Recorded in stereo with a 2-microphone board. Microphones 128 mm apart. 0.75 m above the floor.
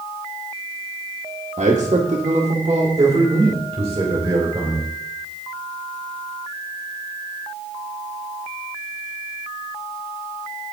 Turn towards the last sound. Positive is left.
turn(degrees=-30)  # may be behind; listen again after turning